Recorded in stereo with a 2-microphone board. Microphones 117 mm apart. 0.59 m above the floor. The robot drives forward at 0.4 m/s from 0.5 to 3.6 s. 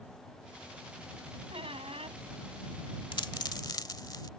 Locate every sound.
1.5 s a squeak: 55° right (ahead or behind); by 2.2 s 60° right (ahead or behind)
3.1 s a dropped coin: 45° left (ahead or behind); by 4.3 s 40° left (ahead or behind)